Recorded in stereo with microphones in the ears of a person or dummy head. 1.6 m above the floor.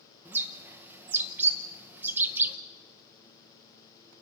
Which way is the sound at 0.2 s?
10° right (ahead or behind).